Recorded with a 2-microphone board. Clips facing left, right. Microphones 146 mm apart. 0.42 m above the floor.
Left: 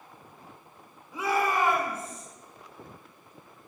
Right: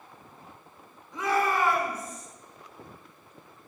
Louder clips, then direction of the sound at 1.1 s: Even; 10° left (ahead or behind).